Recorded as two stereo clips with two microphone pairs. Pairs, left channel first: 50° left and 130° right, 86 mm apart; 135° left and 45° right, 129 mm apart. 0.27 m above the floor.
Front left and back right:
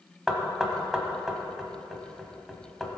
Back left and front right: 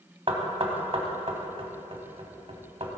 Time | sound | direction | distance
0.3 | knocking | 45° right | 1.5 m